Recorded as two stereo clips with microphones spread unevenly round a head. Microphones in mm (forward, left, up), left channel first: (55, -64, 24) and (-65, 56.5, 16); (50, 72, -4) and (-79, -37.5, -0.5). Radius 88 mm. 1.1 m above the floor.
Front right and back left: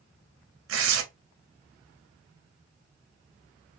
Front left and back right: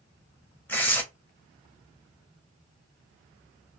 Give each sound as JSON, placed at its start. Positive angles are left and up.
{"t": 0.7, "sound": "tearing paper", "azimuth_deg": 120, "distance_m": 0.8}